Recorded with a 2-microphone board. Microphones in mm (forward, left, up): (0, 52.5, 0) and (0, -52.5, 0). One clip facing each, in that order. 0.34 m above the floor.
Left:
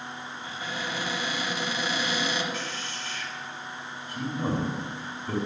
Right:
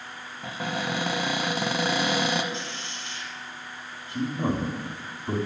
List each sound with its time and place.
0.4 s a cupboard door: 65° right (ahead or behind), 1.0 m
2.5 s a man speaking: 25° right (ahead or behind), 2 m